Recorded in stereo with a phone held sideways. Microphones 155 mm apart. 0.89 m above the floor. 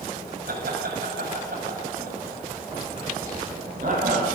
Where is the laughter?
80° right, 6.5 m; by 4.2 s 60° right (ahead or behind), 8 m.